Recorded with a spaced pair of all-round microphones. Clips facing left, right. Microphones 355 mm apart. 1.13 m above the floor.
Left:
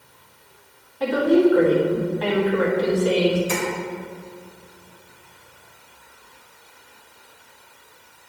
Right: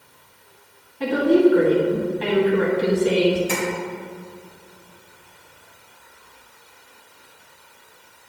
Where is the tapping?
65° right (ahead or behind), 2 m.